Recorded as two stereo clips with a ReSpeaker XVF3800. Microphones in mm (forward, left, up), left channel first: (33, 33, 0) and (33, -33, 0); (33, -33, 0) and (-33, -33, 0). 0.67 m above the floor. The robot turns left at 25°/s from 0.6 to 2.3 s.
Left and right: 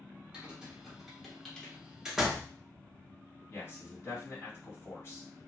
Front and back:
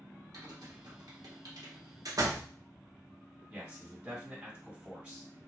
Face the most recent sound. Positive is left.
turn(degrees=115)